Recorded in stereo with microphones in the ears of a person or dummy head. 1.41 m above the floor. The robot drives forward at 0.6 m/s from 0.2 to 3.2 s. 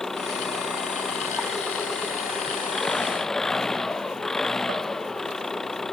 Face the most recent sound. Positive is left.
turn(degrees=5)  # may be behind; listen again after turning